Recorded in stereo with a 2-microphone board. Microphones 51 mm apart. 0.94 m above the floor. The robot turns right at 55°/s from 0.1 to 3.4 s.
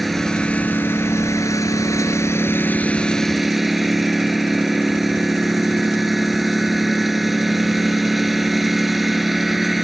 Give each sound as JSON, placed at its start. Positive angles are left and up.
{"t": 0.0, "sound": "a lawn mower", "azimuth_deg": 0}